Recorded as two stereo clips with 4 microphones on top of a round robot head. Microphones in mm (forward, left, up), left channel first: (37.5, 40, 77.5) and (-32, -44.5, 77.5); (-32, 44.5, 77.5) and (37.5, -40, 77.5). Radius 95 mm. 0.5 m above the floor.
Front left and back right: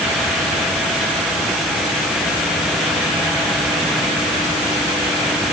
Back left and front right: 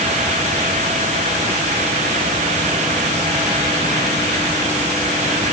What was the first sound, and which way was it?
Only background noise.